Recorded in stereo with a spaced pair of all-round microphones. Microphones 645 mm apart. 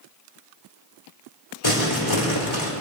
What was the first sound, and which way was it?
Crumpling, 50° left (ahead or behind).